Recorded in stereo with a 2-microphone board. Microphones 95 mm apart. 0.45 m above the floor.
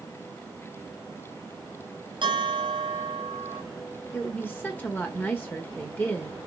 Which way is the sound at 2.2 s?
60° right (ahead or behind).